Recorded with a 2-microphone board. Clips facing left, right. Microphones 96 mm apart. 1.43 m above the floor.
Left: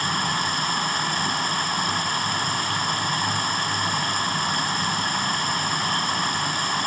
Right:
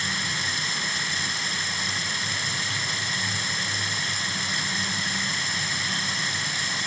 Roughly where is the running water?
Left.